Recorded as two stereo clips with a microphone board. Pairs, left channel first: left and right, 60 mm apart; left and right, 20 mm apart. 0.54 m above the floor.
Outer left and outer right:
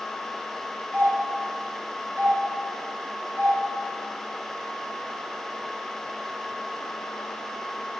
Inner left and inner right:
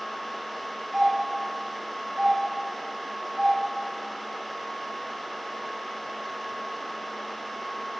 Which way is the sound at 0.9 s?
30° right (ahead or behind).